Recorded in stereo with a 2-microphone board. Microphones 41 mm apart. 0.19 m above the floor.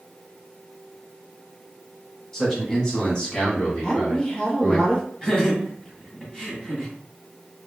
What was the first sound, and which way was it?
A man speaking, 10° left (ahead or behind).